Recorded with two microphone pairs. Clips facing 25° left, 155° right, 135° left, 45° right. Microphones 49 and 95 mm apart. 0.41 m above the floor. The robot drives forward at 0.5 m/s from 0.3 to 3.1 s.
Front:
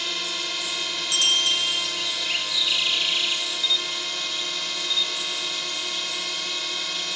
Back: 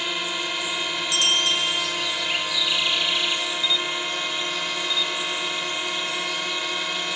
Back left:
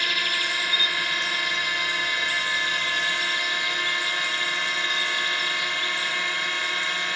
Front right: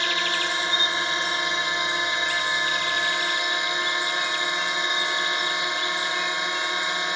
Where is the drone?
95° right; by 7.2 s 105° right.